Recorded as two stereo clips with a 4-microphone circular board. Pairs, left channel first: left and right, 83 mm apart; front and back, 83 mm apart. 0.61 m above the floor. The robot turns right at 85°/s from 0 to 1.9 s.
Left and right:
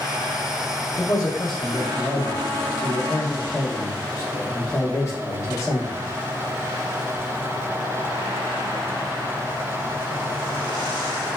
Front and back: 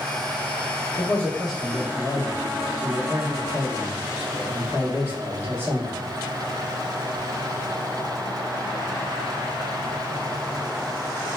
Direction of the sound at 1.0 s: 50° left.